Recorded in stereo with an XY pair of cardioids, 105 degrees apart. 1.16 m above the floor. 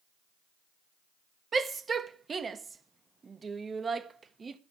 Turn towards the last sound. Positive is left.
turn(degrees=-35)